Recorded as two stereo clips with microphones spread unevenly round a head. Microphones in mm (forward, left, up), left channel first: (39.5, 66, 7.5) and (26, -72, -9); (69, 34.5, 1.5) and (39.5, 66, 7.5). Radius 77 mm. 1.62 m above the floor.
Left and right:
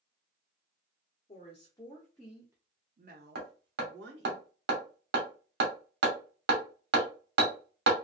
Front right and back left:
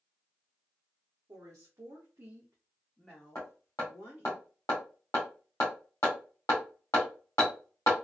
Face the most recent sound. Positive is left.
turn(degrees=-110)